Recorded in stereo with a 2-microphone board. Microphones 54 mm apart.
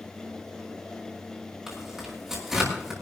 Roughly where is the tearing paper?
Centre.